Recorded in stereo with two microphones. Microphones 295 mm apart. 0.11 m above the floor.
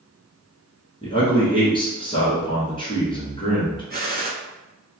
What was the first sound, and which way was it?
A man speaking, 15° left (ahead or behind).